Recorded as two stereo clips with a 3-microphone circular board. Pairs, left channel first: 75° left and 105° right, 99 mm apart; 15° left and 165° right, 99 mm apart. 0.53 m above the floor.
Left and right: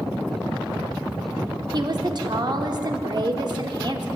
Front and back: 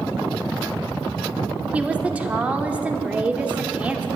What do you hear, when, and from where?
1.7 s a woman speaking: 95° right, 1.0 m